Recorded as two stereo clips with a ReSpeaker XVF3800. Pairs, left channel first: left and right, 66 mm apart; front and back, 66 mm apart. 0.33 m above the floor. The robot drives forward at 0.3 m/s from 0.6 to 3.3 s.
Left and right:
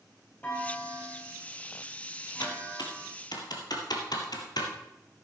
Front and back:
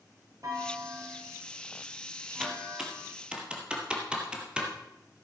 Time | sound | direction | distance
0.4 | a clunk | 155° left | 3 m
2.4 | typing on a keyboard | 95° left | 1.9 m